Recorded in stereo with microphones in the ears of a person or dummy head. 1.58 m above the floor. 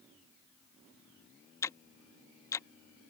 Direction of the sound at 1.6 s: 15° left (ahead or behind).